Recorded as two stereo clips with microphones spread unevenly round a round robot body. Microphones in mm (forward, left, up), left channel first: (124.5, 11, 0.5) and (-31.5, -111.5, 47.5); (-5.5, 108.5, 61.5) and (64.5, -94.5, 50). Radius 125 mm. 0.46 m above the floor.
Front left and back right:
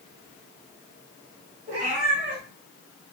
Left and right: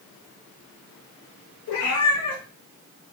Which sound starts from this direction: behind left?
A cat meowing, at 1.7 s.